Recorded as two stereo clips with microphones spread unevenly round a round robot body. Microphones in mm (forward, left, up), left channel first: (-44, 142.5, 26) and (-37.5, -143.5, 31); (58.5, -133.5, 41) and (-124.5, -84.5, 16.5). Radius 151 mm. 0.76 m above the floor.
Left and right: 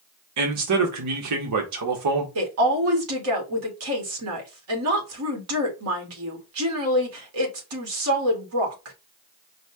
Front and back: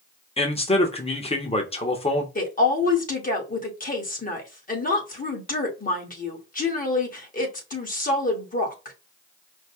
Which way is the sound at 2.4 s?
60° right.